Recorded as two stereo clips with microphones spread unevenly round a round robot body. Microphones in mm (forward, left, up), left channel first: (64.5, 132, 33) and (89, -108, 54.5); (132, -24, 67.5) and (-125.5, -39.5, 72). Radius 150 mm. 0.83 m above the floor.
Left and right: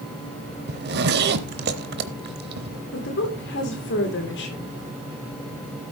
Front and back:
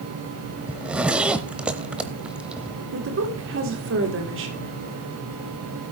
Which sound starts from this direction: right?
A zipper, at 0.7 s.